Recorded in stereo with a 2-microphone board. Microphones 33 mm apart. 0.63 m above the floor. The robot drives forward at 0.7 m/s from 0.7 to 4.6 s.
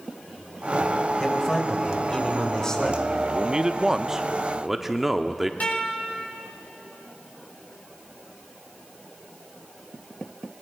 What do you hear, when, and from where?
1.2 s a man speaking: 15° left (ahead or behind), 3.5 m; by 3.0 s 25° left (ahead or behind), 2.5 m
3.3 s a man speaking: 20° right (ahead or behind), 0.6 m; by 5.5 s 10° right (ahead or behind), 0.9 m
5.6 s a guitar: 50° left (ahead or behind), 5.5 m